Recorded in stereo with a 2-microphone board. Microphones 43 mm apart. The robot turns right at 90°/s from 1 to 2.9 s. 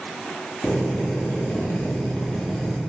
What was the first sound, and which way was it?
A drill, 40° left.